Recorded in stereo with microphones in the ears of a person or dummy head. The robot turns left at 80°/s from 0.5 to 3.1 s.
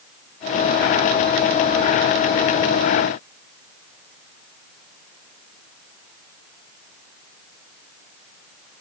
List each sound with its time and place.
Only background noise.